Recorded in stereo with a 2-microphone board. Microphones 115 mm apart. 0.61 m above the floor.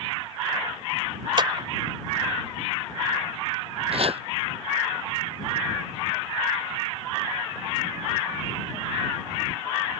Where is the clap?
45° right (ahead or behind).